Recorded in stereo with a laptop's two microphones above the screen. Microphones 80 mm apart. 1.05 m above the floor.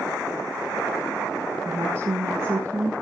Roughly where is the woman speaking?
Right.